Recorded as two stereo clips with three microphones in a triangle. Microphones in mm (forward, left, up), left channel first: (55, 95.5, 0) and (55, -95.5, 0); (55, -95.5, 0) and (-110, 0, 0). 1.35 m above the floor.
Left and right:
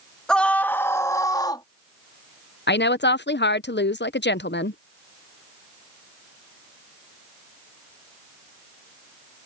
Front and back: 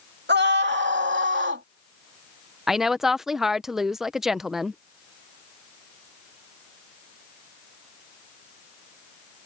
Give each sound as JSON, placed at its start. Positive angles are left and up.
{"t": 0.3, "sound": "a scream", "azimuth_deg": 175}
{"t": 2.7, "sound": "a woman speaking", "azimuth_deg": 60}